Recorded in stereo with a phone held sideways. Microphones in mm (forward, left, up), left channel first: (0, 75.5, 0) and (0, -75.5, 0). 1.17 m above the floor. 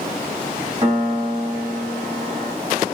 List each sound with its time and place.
0.8 s a piano: 35° right (ahead or behind), 1.1 m